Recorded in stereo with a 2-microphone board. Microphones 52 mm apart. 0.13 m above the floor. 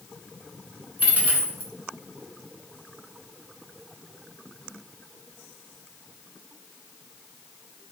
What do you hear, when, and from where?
1.0 s a dropped coin: 30° right (ahead or behind), 0.6 m